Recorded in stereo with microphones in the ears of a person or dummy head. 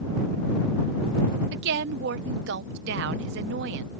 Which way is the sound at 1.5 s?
65° right (ahead or behind).